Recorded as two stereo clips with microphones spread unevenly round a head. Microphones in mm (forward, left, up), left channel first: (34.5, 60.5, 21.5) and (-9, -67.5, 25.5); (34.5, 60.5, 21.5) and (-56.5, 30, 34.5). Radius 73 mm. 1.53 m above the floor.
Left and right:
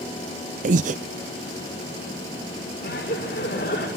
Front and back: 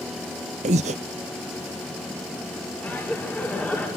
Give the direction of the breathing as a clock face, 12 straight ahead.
5 o'clock.